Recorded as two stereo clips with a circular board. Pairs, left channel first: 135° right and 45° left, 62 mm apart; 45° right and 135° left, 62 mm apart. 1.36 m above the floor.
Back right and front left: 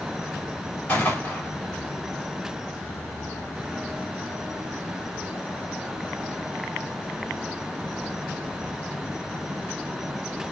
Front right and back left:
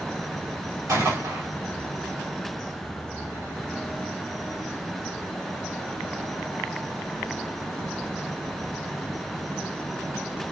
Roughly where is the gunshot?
Behind.